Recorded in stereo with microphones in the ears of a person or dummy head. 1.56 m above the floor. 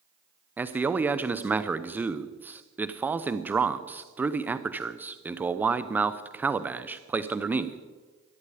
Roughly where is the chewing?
No chewing in this recording.